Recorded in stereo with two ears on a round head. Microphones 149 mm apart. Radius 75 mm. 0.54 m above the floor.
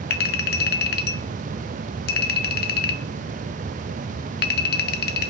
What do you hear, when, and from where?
0.1 s a clink: 65° left (ahead or behind), 0.9 m